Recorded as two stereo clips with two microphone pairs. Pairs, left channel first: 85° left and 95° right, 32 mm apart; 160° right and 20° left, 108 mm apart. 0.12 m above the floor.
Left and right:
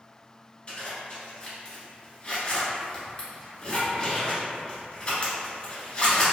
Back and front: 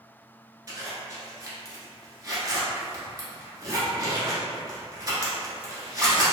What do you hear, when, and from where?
0.7 s a zipper: 50° left, 0.8 m